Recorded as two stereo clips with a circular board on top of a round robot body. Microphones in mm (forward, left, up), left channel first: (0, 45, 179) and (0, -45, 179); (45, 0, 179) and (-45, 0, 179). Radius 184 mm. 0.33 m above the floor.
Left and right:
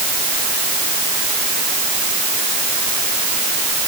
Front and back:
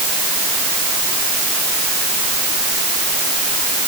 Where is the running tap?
No running tap in this recording.